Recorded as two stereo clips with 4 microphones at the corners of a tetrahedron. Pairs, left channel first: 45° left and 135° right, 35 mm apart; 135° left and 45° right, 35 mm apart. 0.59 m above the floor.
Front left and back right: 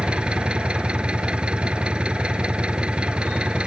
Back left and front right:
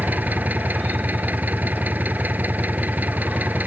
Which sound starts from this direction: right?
An engine running, at 0.0 s.